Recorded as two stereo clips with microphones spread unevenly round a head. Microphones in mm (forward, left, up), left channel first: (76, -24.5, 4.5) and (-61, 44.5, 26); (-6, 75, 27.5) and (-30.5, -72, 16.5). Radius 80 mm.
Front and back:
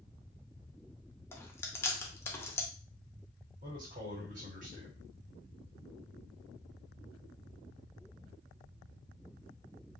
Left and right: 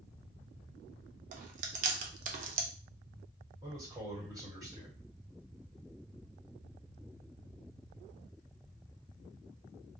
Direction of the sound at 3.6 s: 165° right.